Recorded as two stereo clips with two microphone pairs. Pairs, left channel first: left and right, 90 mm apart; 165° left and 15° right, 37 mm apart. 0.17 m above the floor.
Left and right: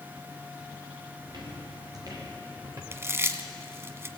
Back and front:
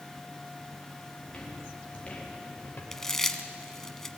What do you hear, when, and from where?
1.2 s footsteps: 130° right, 6 m; by 2.8 s 150° right, 5 m
2.9 s chewing: 125° right, 1.1 m